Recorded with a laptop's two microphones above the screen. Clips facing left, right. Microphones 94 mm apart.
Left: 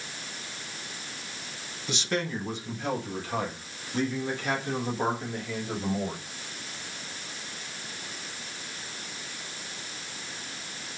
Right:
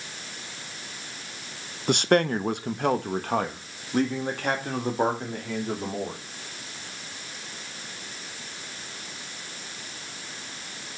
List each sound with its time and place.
1.9 s a man speaking: 55° right (ahead or behind), 0.6 m; by 6.2 s 50° right (ahead or behind), 2.5 m